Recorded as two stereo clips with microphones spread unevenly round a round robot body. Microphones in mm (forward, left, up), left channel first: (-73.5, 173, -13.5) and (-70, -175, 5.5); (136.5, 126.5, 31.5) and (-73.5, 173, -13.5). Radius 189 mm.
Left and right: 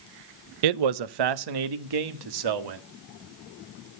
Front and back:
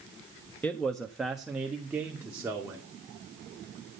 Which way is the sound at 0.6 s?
105° right.